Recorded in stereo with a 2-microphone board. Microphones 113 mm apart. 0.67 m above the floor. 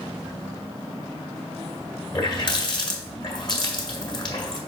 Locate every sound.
2.1 s a running tap: 45° left (ahead or behind), 1.8 m